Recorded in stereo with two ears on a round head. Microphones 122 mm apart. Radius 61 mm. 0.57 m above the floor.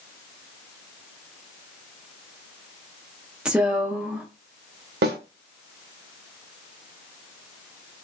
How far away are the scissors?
I don't hear scissors.